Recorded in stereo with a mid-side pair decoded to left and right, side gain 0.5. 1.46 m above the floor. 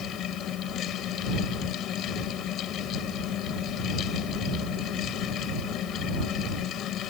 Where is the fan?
65° left.